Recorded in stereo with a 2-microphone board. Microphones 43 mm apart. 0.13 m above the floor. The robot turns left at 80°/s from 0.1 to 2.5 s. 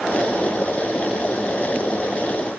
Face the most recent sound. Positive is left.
No sound to turn to.